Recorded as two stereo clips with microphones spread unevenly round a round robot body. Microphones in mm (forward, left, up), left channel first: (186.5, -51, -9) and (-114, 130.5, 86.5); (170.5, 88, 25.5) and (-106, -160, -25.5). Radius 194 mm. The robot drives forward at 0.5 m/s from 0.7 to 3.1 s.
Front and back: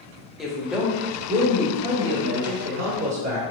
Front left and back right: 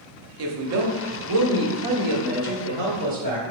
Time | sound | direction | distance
0.4 | a woman speaking | 110° right | 0.8 m